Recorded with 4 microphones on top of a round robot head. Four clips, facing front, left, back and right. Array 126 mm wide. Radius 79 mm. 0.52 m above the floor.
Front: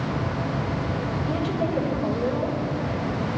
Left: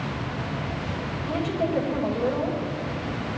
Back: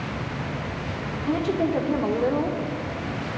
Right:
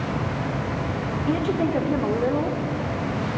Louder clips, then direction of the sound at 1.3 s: Right 3 dB, back 5 dB; 125° right.